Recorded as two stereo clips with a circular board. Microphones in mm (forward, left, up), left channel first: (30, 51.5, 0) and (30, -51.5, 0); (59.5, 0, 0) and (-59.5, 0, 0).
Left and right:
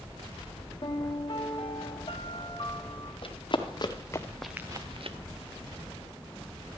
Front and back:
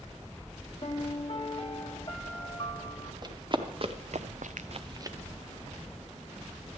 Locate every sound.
0.8 s a piano: 50° left, 1.0 m
3.2 s running footsteps: 125° left, 1.5 m; by 5.2 s 115° right, 0.8 m